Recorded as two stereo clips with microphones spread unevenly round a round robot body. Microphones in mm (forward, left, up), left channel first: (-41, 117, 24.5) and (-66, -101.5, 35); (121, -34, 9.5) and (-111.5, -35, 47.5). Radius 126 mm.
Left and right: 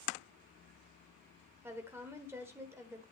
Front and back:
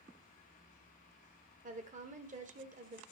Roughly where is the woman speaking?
Behind.